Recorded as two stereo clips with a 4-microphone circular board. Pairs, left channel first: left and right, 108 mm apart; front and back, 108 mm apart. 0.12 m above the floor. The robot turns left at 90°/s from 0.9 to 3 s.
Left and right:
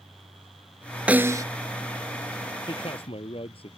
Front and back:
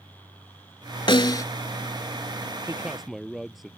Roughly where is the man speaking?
Behind left.